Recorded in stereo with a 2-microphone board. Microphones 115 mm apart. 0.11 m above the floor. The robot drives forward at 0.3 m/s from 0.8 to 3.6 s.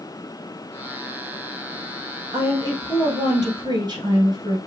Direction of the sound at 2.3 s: 35° right (ahead or behind).